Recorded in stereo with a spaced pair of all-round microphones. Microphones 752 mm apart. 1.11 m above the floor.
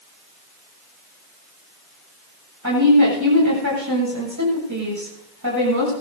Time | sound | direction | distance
2.6 | a woman speaking | 25° right (ahead or behind) | 7.5 m